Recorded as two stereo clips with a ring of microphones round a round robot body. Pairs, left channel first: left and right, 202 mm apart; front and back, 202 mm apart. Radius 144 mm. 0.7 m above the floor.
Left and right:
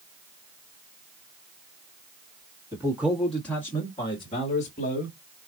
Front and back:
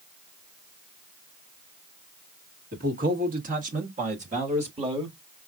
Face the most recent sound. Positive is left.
turn(degrees=125)